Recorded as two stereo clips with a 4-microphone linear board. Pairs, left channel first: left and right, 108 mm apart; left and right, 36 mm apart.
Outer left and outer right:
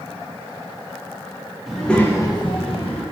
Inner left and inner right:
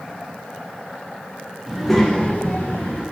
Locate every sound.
1.7 s a child speaking: 5° right (ahead or behind), 0.8 m; by 3.0 s 65° left (ahead or behind), 0.9 m